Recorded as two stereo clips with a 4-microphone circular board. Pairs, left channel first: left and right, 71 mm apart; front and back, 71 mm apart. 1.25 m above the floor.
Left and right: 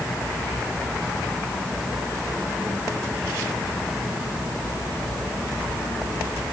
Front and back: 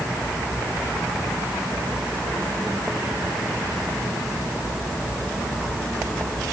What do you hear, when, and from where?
Only background noise.